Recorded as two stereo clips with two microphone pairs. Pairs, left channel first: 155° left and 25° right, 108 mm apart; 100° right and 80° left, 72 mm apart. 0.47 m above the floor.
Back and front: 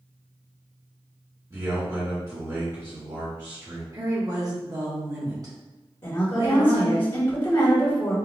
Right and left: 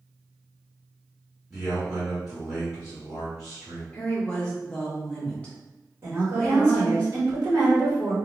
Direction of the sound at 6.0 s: 120° left.